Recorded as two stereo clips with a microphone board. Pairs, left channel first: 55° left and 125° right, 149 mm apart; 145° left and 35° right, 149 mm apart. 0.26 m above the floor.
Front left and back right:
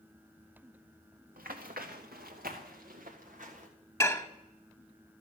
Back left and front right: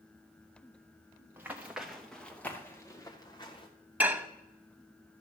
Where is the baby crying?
I don't hear a baby crying.